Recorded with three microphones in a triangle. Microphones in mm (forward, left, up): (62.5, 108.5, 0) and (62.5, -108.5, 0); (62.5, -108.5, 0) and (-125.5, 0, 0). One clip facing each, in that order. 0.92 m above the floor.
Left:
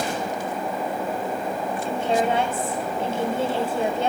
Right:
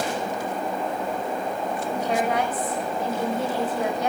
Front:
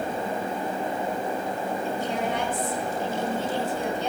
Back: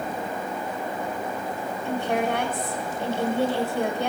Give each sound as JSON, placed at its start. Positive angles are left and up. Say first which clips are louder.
{"t": 1.9, "sound": "a woman speaking", "louder": "left 3 dB, back 7 dB", "azimuth_deg": 150, "distance_m": 5.5}